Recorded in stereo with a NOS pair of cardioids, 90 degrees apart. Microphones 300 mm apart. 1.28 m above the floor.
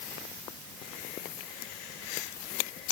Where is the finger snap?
No finger snap in this recording.